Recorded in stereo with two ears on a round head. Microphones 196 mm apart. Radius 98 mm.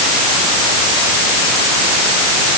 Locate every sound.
Only background noise.